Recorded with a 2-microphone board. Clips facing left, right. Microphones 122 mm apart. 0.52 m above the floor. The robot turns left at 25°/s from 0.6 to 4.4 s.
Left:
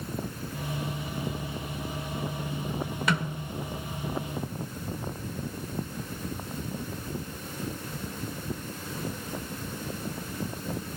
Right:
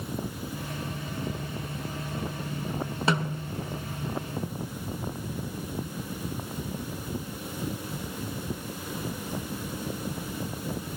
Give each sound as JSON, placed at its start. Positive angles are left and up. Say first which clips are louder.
{"t": 3.1, "sound": "a snare drum", "louder": "right 3 dB", "side_deg": -30, "distance_m": 1.7}